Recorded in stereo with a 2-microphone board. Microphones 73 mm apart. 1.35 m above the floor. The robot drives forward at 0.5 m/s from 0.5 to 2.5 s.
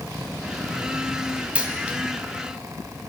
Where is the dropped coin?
15° right (ahead or behind), 2 m.